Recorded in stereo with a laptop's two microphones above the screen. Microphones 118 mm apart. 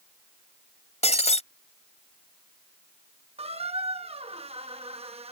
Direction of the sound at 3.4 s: 70° right (ahead or behind).